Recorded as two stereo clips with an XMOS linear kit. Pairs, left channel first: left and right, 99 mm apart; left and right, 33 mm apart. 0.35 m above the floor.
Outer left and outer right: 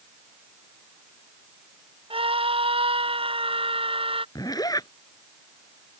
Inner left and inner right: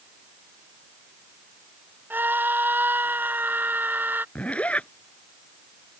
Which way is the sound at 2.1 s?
85° right.